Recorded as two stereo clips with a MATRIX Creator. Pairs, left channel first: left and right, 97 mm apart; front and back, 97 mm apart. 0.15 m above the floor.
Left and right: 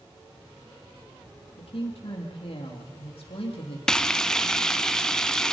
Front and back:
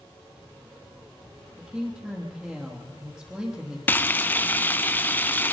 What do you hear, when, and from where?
1.6 s a woman speaking: 100° left, 5.5 m
3.9 s frying: 20° left, 0.9 m